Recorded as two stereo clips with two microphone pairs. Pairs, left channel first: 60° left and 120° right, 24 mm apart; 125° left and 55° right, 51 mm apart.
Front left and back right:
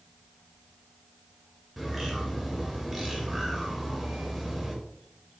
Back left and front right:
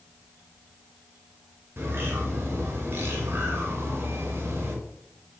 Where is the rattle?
I don't hear a rattle.